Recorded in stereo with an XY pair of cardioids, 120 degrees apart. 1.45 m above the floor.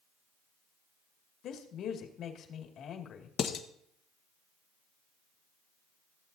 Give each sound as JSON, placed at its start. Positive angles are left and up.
{"t": 1.4, "sound": "a woman speaking", "azimuth_deg": 65, "distance_m": 2.0}
{"t": 3.4, "sound": "dishes clattering", "azimuth_deg": 60, "distance_m": 1.2}